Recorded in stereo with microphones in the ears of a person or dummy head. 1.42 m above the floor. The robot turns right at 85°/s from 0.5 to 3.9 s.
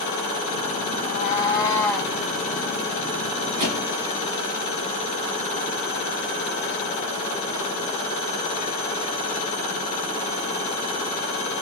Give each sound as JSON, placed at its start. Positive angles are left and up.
{"t": 1.0, "sound": "a cat meowing", "azimuth_deg": 95, "distance_m": 1.2}
{"t": 3.6, "sound": "a thud", "side_deg": -35, "distance_m": 2.0}